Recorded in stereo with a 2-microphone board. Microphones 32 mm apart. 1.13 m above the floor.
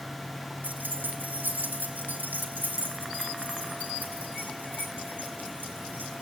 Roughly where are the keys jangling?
Right.